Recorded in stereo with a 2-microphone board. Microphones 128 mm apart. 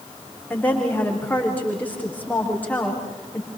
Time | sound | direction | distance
0.5 | a woman speaking | 15° left (ahead or behind) | 7.5 m